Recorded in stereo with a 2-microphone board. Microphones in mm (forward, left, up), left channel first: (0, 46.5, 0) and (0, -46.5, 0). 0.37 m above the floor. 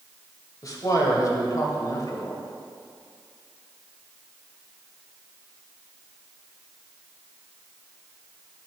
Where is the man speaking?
45° left (ahead or behind), 1.6 m.